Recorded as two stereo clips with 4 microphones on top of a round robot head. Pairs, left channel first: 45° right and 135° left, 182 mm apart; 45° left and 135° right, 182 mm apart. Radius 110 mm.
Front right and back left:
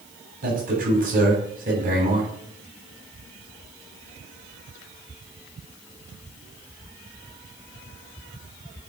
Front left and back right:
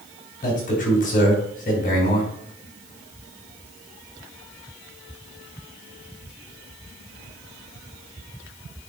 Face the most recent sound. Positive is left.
turn(degrees=90)